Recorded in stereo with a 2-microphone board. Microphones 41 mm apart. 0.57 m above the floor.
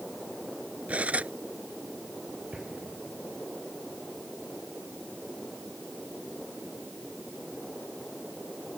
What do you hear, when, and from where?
0.9 s cutlery clinking: 35° right (ahead or behind)
2.5 s an explosion: 20° right (ahead or behind)